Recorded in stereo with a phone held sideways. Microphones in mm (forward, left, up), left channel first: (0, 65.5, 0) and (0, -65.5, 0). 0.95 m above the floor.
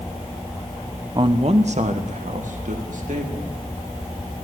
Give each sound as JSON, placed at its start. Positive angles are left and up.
{"t": 1.1, "sound": "a man speaking", "side_deg": -35, "distance_m": 0.5}